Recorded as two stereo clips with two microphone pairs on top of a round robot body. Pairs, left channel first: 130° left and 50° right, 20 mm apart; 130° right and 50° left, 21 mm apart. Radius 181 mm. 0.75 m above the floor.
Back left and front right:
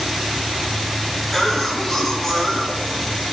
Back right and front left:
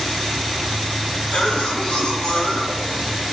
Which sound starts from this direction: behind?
A cough, at 1.3 s.